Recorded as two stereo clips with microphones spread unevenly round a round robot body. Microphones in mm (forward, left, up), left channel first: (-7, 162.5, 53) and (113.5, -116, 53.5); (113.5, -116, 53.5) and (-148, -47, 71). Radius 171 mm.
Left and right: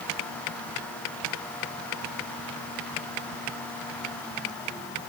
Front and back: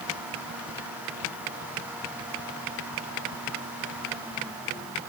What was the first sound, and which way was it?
Only background noise.